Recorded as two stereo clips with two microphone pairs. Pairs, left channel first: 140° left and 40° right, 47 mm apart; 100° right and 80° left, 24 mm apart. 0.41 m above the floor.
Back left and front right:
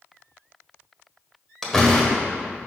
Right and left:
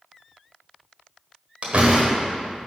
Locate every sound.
1.6 s a door slam: 60° left, 1.4 m